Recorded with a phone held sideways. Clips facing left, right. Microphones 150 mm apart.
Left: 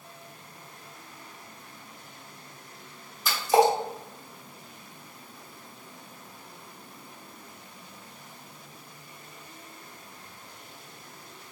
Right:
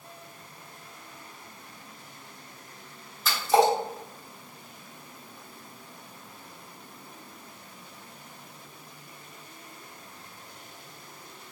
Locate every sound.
3.2 s a splash: 15° left (ahead or behind), 1.3 m